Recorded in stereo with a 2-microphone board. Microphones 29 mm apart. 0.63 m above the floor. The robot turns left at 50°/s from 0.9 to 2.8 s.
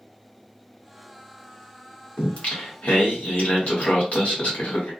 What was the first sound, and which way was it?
Singing, 125° left.